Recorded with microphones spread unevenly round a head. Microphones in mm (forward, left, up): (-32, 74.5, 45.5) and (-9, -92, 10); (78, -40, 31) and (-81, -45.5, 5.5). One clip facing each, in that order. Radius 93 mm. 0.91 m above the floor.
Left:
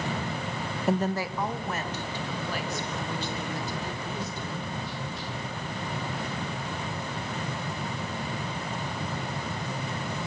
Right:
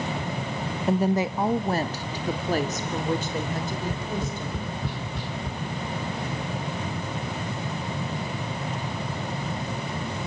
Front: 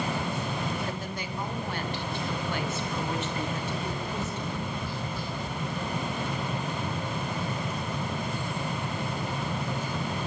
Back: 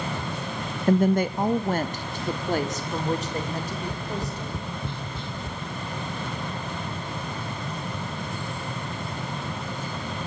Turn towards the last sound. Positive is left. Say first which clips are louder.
# right 4 dB, back 1 dB
turn(degrees=-115)